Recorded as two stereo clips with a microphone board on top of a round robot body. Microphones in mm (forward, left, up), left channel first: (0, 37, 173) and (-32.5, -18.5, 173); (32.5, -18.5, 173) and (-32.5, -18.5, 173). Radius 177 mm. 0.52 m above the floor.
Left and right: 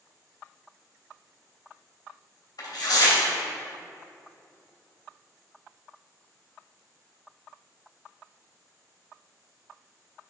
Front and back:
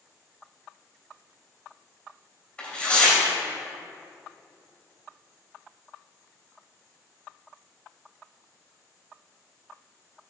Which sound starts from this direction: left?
Tearing paper, at 2.6 s.